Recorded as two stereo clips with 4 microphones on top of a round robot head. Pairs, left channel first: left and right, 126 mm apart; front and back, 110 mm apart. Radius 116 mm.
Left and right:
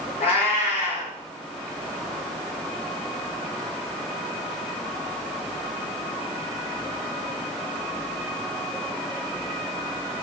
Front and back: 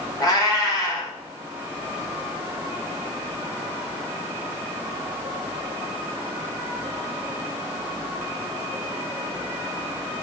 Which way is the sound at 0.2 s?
55° left.